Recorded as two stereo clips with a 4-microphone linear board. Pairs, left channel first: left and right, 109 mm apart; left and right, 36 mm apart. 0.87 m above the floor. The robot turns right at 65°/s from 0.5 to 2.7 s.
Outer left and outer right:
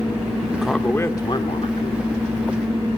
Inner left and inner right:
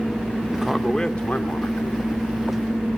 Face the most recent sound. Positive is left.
turn(degrees=135)